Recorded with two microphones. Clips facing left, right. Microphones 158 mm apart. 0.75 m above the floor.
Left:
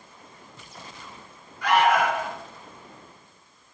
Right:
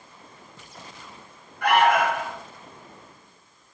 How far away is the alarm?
About 2 m.